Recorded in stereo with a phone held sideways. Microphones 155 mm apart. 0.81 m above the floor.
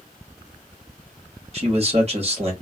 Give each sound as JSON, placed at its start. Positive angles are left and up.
{"t": 1.5, "sound": "a man speaking", "side_deg": -40, "distance_m": 1.0}